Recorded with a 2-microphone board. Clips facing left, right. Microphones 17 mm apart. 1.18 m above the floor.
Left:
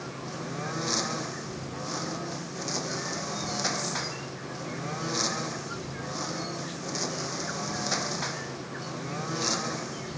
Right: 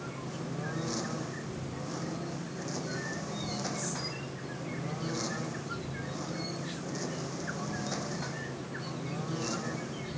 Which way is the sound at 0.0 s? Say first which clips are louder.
Left 3 dB; 35° left (ahead or behind).